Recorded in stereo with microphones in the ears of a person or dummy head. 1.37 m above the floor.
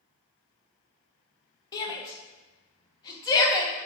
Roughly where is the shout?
Left.